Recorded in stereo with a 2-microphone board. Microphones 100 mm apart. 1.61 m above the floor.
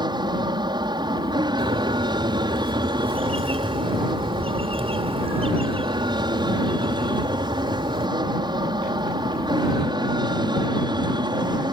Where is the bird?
75° right (ahead or behind).